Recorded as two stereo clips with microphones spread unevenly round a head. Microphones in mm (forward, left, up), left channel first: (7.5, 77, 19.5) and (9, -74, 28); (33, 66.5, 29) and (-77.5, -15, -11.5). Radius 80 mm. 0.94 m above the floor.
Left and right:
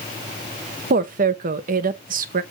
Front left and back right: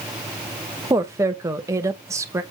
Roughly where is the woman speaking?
Right.